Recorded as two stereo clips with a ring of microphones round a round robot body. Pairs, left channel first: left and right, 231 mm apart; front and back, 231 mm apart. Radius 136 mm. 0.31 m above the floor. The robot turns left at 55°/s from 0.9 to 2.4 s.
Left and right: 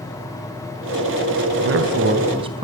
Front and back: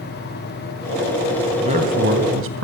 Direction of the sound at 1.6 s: 115° right.